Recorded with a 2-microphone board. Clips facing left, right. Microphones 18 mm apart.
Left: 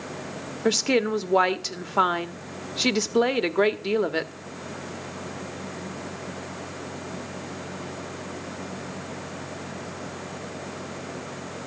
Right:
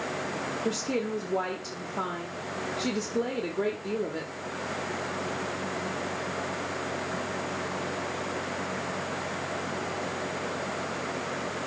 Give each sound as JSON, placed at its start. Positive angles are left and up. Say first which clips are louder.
{"t": 0.7, "sound": "a woman speaking", "louder": "left 10 dB", "side_deg": 50, "distance_m": 1.1}